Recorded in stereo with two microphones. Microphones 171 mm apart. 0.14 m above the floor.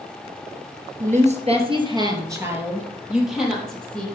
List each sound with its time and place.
1.0 s a woman speaking: 50° right (ahead or behind), 2.5 m; by 4.0 s 5° left (ahead or behind), 4.5 m